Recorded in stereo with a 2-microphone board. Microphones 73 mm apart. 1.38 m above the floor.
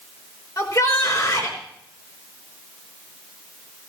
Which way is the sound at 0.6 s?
50° left (ahead or behind).